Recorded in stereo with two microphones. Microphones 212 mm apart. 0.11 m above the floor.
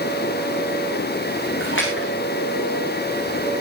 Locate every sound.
1.6 s a splash: 60° left (ahead or behind), 6 m